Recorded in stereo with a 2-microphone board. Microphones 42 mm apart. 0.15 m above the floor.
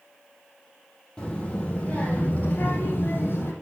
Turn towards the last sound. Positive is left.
turn(degrees=65)  # may be behind; listen again after turning